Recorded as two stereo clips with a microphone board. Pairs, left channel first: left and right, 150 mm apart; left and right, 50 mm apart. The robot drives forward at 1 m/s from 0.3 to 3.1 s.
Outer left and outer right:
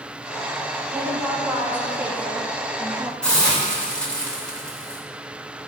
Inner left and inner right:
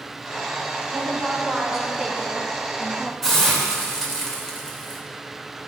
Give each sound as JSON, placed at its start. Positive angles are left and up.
{"t": 0.9, "sound": "a woman speaking", "side_deg": -10, "distance_m": 3.5}
{"t": 3.2, "sound": "a hiss", "side_deg": 5, "distance_m": 2.5}